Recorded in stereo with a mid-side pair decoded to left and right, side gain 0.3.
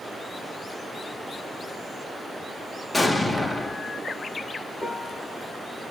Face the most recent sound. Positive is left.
turn(degrees=30)